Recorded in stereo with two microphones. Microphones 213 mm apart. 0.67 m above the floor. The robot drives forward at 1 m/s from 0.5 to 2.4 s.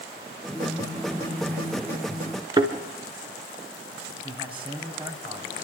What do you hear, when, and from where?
2.6 s a thud: 20° right (ahead or behind), 2 m
4.2 s a man speaking: 25° right (ahead or behind), 4 m